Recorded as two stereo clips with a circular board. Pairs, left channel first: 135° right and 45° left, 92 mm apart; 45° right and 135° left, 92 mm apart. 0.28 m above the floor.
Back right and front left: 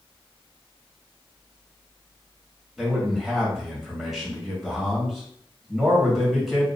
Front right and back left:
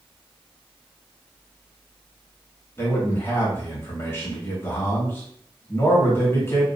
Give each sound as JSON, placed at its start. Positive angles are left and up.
{"t": 2.8, "sound": "a man speaking", "azimuth_deg": -45, "distance_m": 1.1}